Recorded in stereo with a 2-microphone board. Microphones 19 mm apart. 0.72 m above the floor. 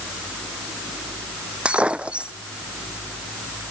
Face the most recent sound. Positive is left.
turn(degrees=-70)  # may be behind; listen again after turning